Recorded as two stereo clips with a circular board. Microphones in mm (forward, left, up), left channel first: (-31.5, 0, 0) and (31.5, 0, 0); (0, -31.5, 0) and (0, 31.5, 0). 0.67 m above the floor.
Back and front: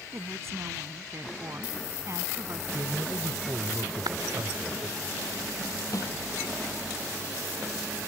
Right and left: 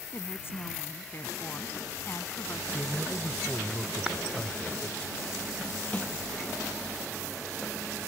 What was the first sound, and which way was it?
A woman speaking, 40° right.